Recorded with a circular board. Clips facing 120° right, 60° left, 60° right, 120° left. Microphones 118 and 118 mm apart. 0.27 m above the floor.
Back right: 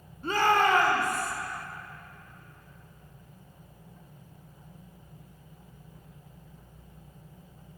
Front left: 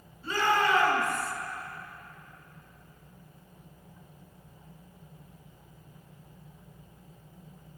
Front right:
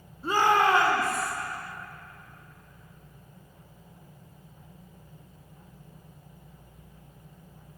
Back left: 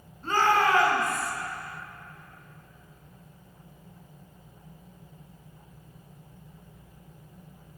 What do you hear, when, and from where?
0.2 s a shout: 140° right, 2.0 m; by 1.3 s 100° right, 2.0 m